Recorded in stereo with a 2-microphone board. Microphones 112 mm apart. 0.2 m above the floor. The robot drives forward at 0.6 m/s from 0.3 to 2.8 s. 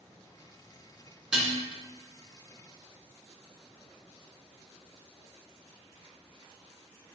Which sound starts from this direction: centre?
Dishes clattering, at 1.3 s.